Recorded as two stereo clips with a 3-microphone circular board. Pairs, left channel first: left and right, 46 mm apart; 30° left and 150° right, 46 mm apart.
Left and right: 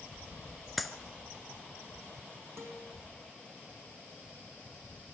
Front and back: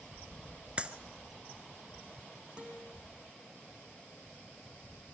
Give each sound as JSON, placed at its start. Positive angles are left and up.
{"t": 0.8, "sound": "a clap", "azimuth_deg": 175, "distance_m": 1.2}
{"t": 2.6, "sound": "a guitar", "azimuth_deg": -85, "distance_m": 4.5}